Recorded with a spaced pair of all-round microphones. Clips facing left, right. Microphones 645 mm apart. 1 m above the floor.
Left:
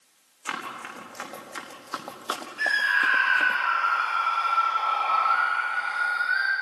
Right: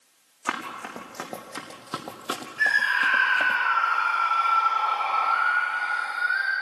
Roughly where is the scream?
Centre.